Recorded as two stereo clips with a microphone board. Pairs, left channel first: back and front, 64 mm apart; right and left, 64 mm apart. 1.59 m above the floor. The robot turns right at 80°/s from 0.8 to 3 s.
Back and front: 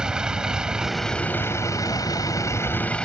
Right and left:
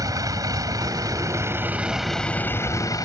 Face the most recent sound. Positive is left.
turn(degrees=-105)